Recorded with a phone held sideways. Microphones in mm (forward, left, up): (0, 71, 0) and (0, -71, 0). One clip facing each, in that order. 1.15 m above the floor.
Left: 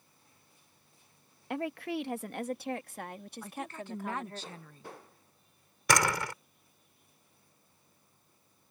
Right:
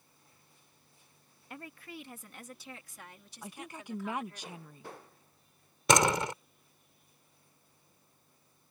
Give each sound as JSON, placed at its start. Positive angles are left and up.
{"t": 1.5, "sound": "a woman speaking", "side_deg": 75}
{"t": 3.4, "sound": "a woman speaking", "side_deg": -15}
{"t": 5.9, "sound": "a door slam", "side_deg": -20}